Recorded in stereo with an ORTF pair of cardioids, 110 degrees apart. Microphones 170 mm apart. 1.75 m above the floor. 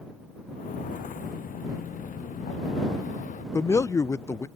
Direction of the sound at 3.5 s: 20° left.